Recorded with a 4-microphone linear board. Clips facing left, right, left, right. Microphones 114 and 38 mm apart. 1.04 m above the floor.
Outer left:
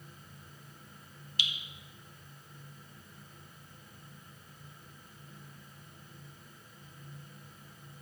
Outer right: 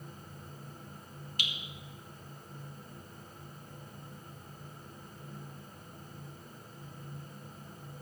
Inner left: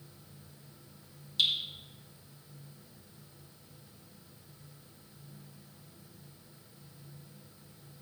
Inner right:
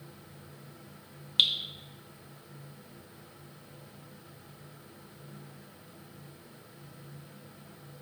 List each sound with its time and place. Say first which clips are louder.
1.4 s dripping: outer left 1 dB, inner right 3 dB; 50° right (ahead or behind), 1.0 m